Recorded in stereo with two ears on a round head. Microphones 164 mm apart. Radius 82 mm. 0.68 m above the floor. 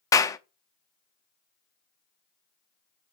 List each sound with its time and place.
0.1 s a clap: 20° left (ahead or behind), 0.6 m